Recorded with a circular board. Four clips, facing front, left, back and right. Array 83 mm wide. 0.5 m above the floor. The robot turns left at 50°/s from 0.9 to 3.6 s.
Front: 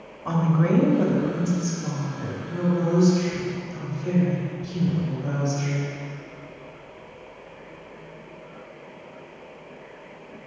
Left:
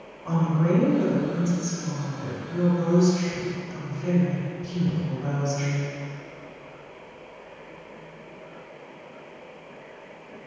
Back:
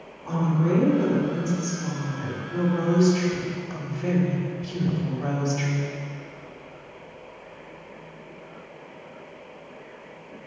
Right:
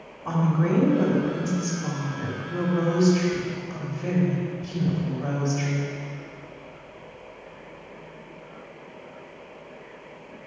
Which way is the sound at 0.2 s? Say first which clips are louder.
Even, front 2 dB; 20° right.